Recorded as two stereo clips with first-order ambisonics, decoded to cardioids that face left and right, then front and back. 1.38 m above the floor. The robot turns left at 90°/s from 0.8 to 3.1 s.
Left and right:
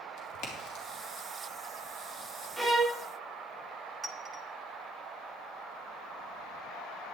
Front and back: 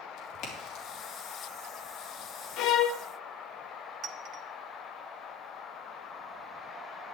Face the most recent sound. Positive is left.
turn(degrees=-150)